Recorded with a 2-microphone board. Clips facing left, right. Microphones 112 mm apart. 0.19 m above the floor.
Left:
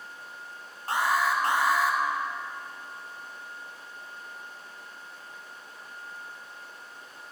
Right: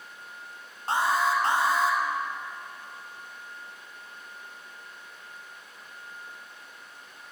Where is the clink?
No clink in this recording.